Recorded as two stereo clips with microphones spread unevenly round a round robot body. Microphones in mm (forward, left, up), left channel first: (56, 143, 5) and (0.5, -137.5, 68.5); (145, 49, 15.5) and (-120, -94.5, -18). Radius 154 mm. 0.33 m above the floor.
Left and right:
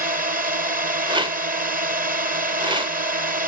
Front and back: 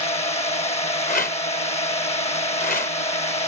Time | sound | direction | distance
0.0 | a drone | 40° right | ?
1.1 | a rattle | 20° right | ?